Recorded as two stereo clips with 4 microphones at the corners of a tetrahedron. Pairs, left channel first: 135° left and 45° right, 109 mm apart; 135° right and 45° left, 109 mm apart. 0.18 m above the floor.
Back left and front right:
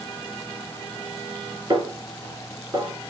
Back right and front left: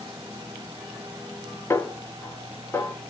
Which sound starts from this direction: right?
A snare drum, at 1.7 s.